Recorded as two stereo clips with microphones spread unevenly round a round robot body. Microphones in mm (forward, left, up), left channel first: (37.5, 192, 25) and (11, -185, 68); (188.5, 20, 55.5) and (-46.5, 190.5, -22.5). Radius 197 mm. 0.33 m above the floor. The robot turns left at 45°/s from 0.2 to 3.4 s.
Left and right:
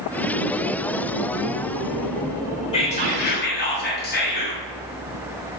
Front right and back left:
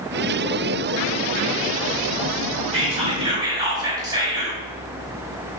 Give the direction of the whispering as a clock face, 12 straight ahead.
7 o'clock.